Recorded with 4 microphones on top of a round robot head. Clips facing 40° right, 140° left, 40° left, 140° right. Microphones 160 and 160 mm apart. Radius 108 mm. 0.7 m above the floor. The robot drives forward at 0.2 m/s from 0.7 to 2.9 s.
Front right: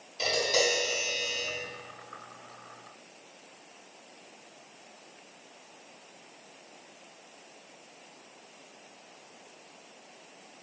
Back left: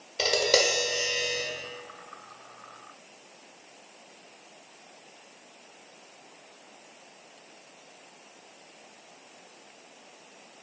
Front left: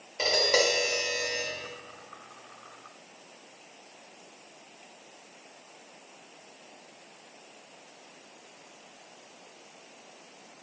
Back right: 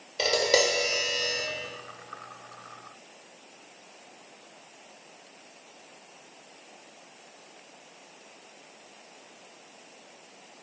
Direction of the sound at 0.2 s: 160° left.